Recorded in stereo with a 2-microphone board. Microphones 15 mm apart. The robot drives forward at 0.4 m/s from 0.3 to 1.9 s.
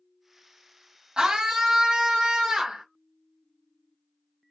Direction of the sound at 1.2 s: 45° right (ahead or behind).